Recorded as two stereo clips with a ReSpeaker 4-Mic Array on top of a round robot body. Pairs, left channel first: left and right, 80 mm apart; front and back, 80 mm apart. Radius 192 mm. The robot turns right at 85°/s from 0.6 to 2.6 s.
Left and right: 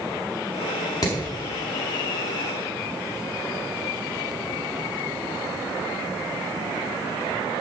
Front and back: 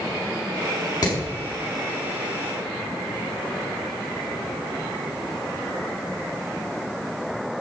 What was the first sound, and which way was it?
Hammering, 40° left.